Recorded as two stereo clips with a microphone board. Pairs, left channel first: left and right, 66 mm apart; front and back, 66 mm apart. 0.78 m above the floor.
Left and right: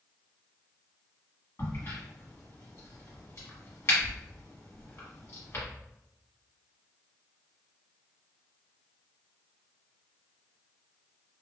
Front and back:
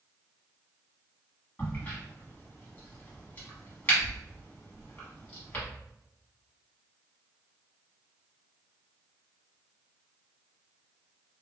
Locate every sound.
1.6 s a crack: 55° left, 1.7 m